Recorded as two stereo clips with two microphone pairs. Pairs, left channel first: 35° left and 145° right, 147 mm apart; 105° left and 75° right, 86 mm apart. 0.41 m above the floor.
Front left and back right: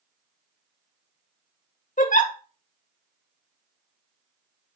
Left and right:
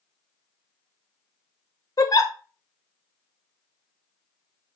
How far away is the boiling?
No boiling in this recording.